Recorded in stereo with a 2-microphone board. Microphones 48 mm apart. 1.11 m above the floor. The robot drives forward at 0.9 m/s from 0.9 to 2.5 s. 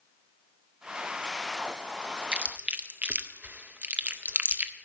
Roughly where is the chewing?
Right.